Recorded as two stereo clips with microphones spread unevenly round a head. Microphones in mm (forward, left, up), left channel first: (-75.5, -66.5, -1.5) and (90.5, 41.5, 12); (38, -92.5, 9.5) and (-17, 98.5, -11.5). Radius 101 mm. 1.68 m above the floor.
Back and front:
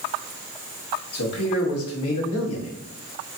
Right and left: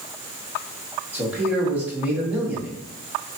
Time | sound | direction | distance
1.1 | a man speaking | 170° right | 1.5 m